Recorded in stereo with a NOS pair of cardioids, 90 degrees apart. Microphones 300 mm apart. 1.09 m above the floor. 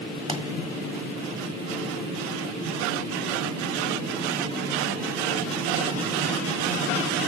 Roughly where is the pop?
Ahead.